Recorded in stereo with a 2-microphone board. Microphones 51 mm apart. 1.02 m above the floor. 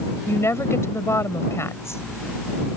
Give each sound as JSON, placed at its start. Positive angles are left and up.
{"t": 0.3, "sound": "a woman speaking", "side_deg": 65}